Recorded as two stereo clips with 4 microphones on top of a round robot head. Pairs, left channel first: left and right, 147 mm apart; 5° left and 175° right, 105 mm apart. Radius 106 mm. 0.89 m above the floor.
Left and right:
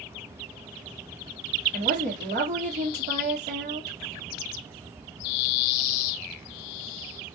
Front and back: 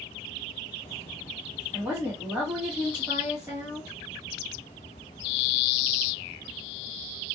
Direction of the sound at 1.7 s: 95° right.